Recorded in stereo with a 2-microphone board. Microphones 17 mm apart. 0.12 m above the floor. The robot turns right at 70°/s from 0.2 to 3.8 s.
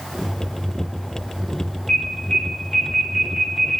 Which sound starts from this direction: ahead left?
An alarm, at 1.9 s.